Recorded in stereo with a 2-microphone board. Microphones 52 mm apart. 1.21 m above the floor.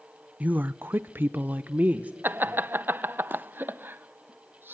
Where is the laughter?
40° right (ahead or behind), 0.7 m.